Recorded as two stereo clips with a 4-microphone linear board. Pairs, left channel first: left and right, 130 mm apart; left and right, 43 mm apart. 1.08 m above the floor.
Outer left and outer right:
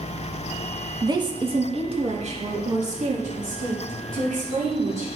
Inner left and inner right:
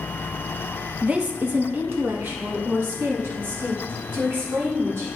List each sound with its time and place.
1.0 s a woman speaking: 25° right (ahead or behind), 0.8 m; by 5.1 s 75° right (ahead or behind), 3 m